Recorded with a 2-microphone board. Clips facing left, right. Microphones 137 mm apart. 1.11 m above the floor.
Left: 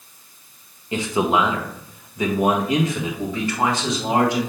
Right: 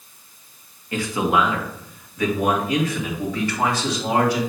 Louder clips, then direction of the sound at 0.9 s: Left 1 dB; 20° left (ahead or behind).